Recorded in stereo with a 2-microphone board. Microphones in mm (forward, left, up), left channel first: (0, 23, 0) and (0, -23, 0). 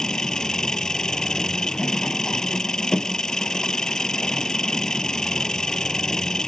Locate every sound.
0.0 s an engine running: 10° left (ahead or behind)